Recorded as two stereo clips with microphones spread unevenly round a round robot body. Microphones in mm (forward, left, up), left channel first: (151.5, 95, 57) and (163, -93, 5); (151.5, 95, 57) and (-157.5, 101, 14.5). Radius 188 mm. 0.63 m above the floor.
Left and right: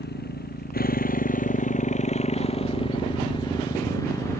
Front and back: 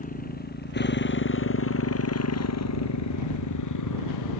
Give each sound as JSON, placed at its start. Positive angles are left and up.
{"t": 0.0, "sound": "a motorcycle", "azimuth_deg": 60}